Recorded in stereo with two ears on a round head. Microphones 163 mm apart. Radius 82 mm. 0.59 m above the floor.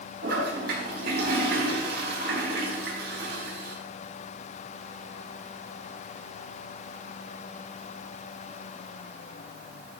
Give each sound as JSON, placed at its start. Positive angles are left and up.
{"t": 0.2, "sound": "a toilet flushing", "side_deg": -60, "distance_m": 4.0}